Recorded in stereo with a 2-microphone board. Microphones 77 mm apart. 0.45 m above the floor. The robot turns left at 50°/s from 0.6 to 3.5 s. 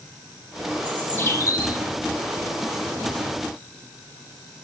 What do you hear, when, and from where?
0.8 s a bird: 165° left, 3 m; by 1.8 s 115° left, 3 m